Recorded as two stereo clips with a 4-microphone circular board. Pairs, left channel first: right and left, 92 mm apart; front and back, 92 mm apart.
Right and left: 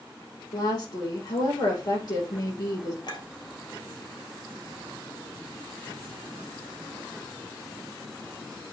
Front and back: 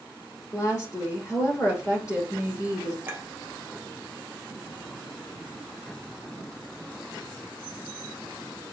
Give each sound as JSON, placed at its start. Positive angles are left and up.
{"t": 0.5, "sound": "a woman speaking", "azimuth_deg": -50, "distance_m": 5.0}
{"t": 3.0, "sound": "a clink", "azimuth_deg": -110, "distance_m": 2.0}